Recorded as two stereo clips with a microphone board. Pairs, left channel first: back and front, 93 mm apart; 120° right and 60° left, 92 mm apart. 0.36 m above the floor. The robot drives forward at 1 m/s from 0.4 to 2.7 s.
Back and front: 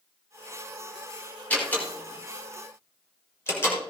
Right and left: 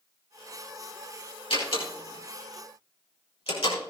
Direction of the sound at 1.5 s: 105° right.